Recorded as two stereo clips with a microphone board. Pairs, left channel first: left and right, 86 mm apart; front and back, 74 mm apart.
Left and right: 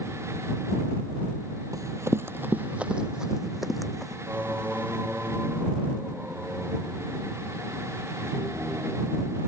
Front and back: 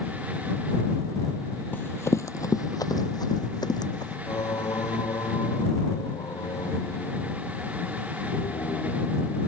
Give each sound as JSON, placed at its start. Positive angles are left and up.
{"t": 1.7, "sound": "running footsteps", "azimuth_deg": -60}
{"t": 4.3, "sound": "singing", "azimuth_deg": -20}